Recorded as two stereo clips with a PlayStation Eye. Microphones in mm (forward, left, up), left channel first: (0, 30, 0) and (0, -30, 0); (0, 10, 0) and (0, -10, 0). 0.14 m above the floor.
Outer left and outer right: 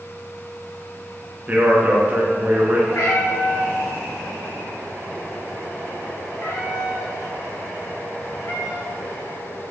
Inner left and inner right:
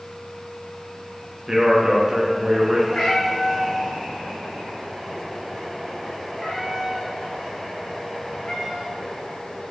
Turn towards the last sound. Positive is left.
turn(degrees=55)  # may be behind; listen again after turning